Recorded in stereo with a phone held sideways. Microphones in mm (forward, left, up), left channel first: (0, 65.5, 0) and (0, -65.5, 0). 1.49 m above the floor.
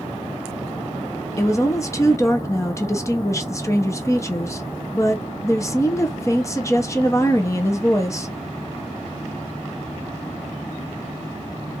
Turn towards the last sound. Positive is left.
turn(degrees=25)  # may be behind; listen again after turning